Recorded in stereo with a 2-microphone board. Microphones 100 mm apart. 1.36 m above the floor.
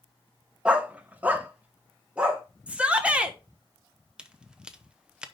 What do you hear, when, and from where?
0.7 s a dog barking: 10° right (ahead or behind), 0.9 m
2.7 s a shout: 10° right (ahead or behind), 1.3 m
4.2 s a crack: 10° right (ahead or behind), 0.7 m